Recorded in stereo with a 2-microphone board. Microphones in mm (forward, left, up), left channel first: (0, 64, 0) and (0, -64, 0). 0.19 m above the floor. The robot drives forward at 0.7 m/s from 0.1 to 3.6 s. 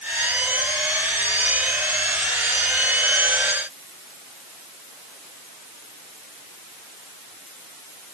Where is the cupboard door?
I don't hear a cupboard door.